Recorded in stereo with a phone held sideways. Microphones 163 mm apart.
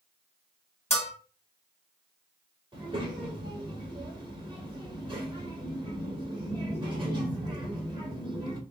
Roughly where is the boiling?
No boiling in this recording.